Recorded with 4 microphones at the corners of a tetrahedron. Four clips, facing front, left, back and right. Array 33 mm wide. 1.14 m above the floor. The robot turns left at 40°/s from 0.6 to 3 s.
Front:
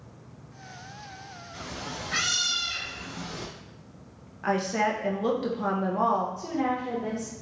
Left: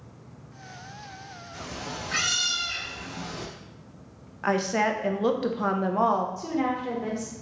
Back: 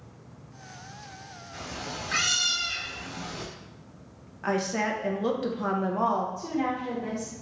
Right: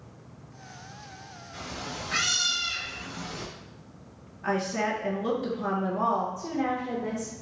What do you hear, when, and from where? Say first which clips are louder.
1.5 s a cat meowing: even, back 1 dB; 175° right, 1.4 m; by 3.5 s 130° left, 1.4 m
4.4 s a woman speaking: left 3 dB, front 2 dB; 85° left, 0.5 m
6.4 s a woman speaking: left 2 dB, front 1 dB; 80° left, 1.3 m